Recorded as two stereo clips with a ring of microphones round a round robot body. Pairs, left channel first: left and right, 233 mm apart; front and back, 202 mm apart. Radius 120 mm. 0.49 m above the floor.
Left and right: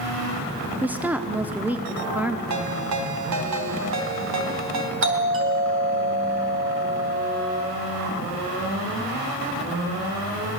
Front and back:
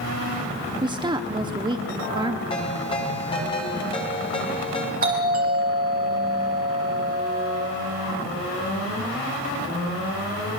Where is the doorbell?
125° right, 4 m.